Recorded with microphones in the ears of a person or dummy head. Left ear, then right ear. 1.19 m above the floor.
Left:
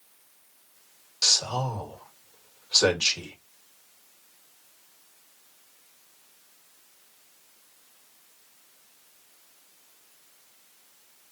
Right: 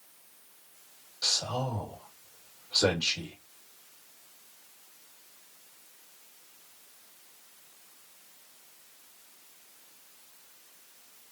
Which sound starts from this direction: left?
A man speaking, at 1.2 s.